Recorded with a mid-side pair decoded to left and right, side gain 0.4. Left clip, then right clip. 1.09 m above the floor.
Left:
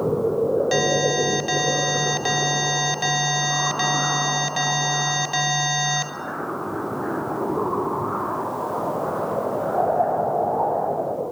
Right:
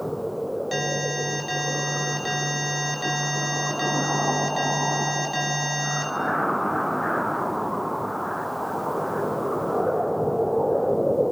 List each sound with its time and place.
0.7 s an alarm: 50° left, 5.5 m